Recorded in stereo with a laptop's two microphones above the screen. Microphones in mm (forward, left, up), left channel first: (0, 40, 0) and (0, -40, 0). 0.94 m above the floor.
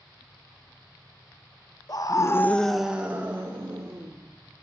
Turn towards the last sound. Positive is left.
turn(degrees=-35)  # may be behind; listen again after turning